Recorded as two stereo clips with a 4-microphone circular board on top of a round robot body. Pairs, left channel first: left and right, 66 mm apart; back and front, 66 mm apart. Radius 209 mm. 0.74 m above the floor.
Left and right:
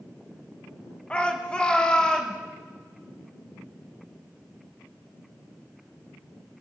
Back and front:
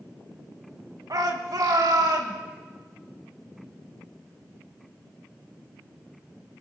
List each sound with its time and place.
1.1 s a shout: 15° left, 1.8 m